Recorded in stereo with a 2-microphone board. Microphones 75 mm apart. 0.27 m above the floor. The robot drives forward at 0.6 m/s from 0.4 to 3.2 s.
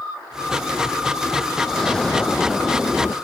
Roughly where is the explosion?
Centre.